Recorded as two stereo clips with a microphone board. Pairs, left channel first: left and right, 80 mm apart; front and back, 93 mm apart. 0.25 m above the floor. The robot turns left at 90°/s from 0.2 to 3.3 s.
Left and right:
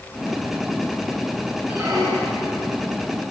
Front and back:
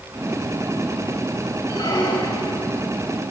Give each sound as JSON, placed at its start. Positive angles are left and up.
{"t": 1.7, "sound": "a squeak", "azimuth_deg": -25, "distance_m": 6.5}